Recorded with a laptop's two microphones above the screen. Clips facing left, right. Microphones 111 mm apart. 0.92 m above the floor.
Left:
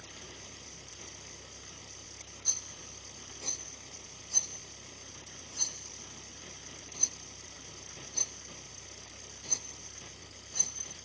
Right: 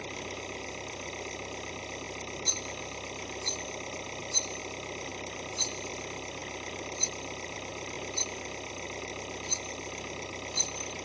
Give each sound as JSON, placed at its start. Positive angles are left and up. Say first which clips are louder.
{"t": 0.0, "sound": "an engine running", "louder": "right 12 dB", "side_deg": -75}
{"t": 2.5, "sound": "a rattle", "louder": "right 13 dB", "side_deg": -15}